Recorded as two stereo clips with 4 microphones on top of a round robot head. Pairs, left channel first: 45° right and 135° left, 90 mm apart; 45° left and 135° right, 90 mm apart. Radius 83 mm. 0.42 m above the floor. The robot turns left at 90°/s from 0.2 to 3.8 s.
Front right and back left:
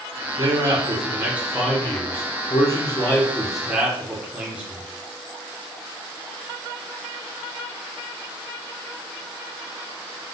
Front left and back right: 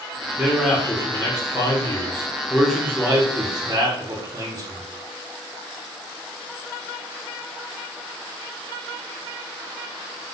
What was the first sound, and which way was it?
A man speaking, 155° left.